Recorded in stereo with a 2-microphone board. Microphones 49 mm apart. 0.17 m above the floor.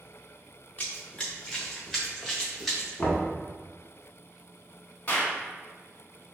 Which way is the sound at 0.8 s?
25° left (ahead or behind).